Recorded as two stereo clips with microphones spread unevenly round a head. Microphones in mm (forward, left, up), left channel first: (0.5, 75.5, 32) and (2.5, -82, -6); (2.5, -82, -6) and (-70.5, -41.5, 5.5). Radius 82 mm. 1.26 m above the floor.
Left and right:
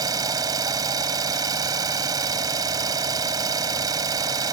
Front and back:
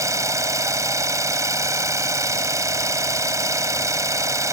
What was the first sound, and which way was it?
An engine running, 160° right.